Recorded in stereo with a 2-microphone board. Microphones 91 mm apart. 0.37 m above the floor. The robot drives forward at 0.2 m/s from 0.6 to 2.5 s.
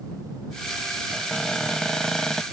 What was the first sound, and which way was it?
A cupboard door, 10° left (ahead or behind).